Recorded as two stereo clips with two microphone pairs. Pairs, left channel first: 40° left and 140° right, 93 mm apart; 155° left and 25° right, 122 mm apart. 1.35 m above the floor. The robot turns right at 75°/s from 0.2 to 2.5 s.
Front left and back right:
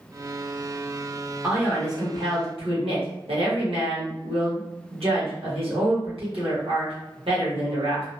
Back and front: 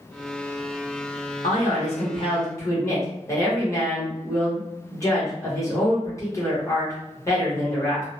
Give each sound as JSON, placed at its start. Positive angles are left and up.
{"t": 1.4, "sound": "a man speaking", "azimuth_deg": 140, "distance_m": 1.4}